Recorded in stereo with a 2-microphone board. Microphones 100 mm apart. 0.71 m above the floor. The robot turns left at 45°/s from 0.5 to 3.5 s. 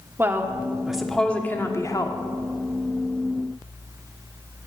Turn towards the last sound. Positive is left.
turn(degrees=70)